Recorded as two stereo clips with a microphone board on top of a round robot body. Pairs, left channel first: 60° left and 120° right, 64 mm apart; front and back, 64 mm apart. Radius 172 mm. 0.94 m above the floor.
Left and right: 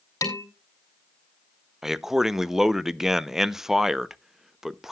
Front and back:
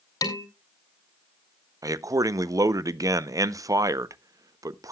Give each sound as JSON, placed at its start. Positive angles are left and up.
{"t": 0.2, "sound": "dishes clattering", "azimuth_deg": 20, "distance_m": 2.5}
{"t": 1.8, "sound": "a man speaking", "azimuth_deg": 155, "distance_m": 0.8}